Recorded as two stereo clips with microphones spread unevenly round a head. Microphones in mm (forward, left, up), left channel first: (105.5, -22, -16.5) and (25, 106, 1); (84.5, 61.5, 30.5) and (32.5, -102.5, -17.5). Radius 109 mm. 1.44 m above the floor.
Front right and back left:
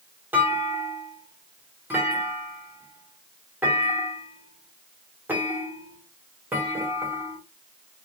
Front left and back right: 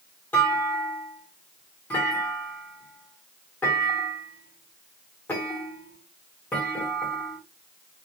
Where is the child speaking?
No child speaking in this recording.